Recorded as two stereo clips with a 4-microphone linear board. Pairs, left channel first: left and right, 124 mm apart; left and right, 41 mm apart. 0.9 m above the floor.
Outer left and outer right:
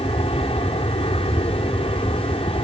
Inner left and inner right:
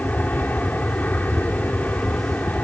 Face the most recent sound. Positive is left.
turn(degrees=50)  # may be behind; listen again after turning